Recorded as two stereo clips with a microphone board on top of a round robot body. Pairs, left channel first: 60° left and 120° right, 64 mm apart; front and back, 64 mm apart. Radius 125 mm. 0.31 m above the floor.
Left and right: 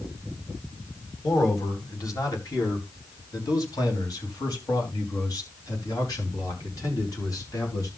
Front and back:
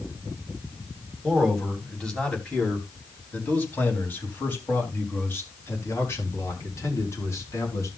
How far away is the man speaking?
About 4 m.